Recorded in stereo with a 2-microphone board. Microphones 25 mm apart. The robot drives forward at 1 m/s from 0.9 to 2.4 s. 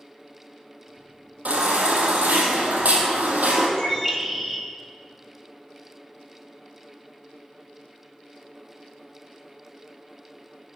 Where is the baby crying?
75° right (ahead or behind), 3.5 m; by 3.7 s 80° right, 3.5 m.